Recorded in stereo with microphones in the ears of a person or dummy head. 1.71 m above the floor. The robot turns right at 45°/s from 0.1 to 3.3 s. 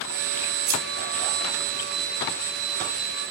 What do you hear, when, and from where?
0.7 s scissors: 40° right (ahead or behind), 3.5 m; by 0.8 s 35° right (ahead or behind), 3.5 m